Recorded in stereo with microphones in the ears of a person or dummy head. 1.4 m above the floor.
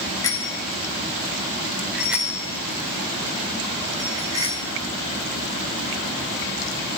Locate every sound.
0.2 s a bicycle bell: 20° left (ahead or behind), 2.5 m; by 4.6 s 15° right (ahead or behind), 6 m